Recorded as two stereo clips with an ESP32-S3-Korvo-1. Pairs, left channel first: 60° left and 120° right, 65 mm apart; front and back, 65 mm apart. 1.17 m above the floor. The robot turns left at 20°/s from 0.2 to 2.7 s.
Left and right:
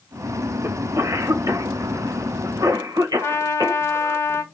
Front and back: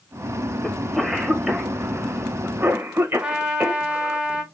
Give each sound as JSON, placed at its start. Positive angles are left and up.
{"t": 0.6, "sound": "a cough", "azimuth_deg": -90, "distance_m": 1.1}
{"t": 3.2, "sound": "a trumpet", "azimuth_deg": 105, "distance_m": 1.2}